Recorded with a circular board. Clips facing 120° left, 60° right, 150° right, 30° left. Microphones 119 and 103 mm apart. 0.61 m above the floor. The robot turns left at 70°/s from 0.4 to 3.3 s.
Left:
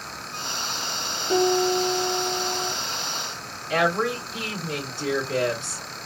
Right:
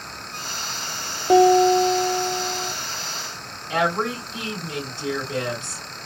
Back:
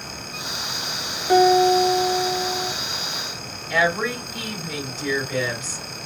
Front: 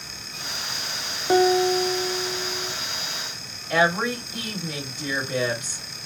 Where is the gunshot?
I don't hear a gunshot.